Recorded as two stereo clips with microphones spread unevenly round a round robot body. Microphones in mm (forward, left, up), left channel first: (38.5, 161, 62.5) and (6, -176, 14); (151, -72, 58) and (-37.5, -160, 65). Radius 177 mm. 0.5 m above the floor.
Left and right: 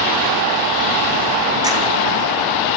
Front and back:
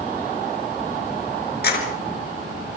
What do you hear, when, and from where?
1.6 s keys jangling: 15° right, 5 m